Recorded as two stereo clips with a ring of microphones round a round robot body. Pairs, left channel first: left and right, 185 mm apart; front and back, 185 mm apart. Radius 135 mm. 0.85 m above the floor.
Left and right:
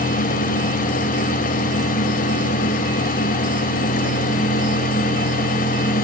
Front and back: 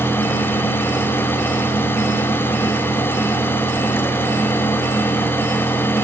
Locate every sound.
Only background noise.